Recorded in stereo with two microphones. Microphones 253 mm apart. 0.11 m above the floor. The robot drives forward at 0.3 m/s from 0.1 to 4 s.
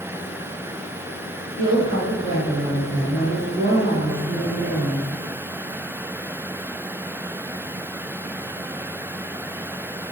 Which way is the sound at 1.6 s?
30° left (ahead or behind).